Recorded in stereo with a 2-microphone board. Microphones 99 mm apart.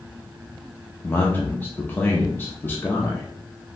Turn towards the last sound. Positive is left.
turn(degrees=20)  # may be behind; listen again after turning